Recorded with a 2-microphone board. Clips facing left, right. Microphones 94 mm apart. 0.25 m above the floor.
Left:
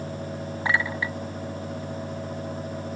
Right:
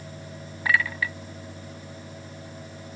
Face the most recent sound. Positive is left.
turn(degrees=25)  # may be behind; listen again after turning